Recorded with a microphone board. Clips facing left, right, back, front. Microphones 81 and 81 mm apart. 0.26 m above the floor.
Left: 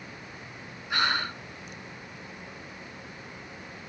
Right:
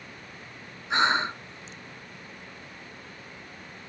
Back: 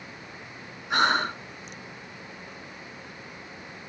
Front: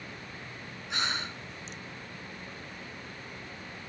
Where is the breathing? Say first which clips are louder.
Right 4 dB, back 12 dB; 155° right.